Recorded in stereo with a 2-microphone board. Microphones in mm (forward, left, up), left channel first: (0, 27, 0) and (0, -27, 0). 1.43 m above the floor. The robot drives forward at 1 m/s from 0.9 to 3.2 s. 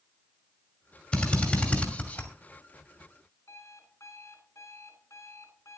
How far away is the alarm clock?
About 4.5 m.